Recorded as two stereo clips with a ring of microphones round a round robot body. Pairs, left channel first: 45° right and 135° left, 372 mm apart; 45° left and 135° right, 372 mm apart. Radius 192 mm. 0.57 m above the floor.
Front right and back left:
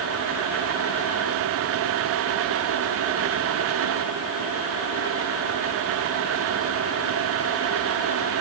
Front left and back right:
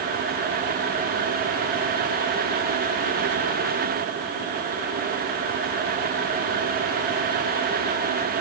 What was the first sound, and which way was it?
Only background noise.